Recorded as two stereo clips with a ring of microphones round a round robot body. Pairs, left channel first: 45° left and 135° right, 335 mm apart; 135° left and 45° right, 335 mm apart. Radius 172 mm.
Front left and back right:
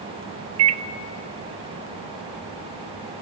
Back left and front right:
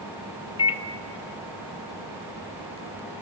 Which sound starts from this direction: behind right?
A microwave, at 0.6 s.